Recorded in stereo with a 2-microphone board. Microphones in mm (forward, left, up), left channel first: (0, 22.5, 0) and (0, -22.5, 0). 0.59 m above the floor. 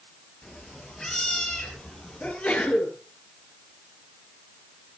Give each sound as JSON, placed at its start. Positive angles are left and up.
{"t": 0.4, "sound": "a cat meowing", "side_deg": 15, "distance_m": 5.0}
{"t": 2.2, "sound": "a sneeze", "side_deg": 25, "distance_m": 8.5}